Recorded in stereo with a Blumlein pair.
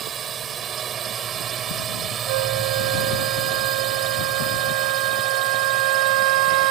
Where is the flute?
50° right.